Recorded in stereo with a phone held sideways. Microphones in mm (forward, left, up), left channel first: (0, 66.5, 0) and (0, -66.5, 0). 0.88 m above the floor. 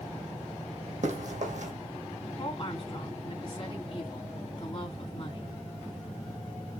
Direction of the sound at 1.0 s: 70° right (ahead or behind).